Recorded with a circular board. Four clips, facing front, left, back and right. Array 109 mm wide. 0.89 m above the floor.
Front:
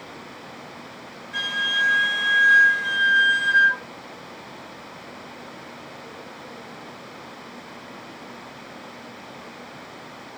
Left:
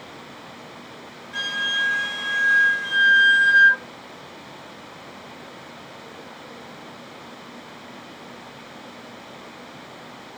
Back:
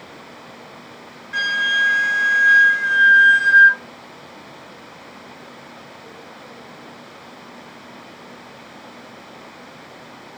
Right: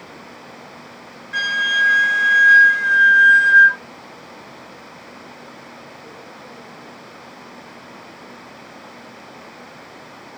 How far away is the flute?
About 0.7 m.